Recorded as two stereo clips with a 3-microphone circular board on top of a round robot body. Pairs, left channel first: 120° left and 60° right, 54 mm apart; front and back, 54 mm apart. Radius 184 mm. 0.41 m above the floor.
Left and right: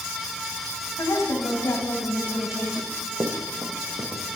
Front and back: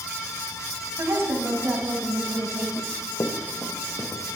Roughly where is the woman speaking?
Behind left.